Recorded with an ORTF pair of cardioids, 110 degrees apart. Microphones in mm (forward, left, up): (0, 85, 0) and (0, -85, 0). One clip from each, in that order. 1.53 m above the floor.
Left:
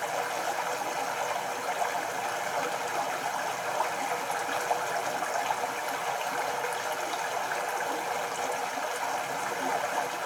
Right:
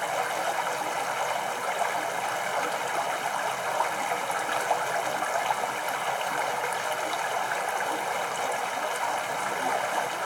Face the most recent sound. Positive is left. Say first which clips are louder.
# right 3 dB
turn(degrees=-15)